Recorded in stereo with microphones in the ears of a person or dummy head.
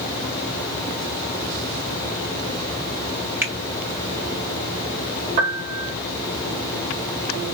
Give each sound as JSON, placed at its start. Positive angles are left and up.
{"t": 3.4, "sound": "a finger snap", "side_deg": -10, "distance_m": 1.4}
{"t": 5.4, "sound": "a piano", "side_deg": -40, "distance_m": 1.9}